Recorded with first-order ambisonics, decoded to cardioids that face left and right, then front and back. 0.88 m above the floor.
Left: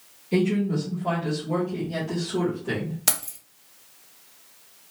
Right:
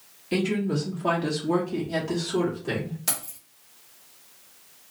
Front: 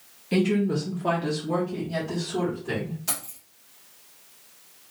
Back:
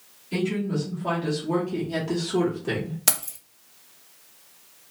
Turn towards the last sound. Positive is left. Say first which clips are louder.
# left 6 dB, back 6 dB
turn(degrees=150)